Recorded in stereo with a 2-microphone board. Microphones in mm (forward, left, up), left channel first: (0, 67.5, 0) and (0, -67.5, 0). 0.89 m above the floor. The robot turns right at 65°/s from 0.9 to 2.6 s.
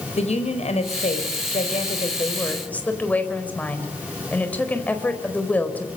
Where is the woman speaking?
60° left, 4.5 m; by 5.9 s 170° left, 4.5 m.